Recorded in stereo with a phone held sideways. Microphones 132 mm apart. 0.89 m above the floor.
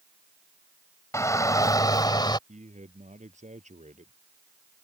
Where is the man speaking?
65° right (ahead or behind).